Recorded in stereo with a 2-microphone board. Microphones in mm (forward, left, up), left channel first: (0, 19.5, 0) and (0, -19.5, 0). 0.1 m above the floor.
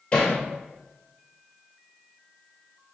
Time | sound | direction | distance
0.1 | hammering | 20° left (ahead or behind) | 2.0 m